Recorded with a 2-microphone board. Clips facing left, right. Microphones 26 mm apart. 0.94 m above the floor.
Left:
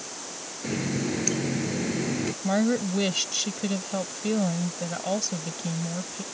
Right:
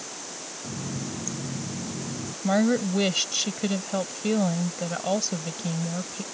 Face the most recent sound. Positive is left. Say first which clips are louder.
# right 3 dB
turn(degrees=-10)  # may be behind; listen again after turning